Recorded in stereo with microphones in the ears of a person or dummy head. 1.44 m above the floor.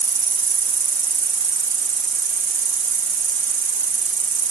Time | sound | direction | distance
0.0 | an insect | 20° right (ahead or behind) | ?